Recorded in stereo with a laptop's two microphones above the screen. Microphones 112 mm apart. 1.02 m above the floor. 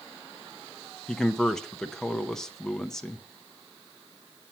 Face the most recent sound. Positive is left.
turn(degrees=5)  # may be behind; listen again after turning